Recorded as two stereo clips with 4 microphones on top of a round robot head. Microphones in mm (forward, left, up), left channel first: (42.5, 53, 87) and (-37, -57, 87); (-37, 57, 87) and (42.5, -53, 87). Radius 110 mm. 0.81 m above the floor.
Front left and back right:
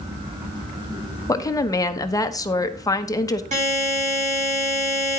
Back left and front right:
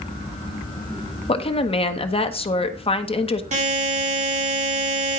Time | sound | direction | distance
1.3 | a woman speaking | 110° left | 1.2 m
3.5 | a buzzer | 90° right | 5.5 m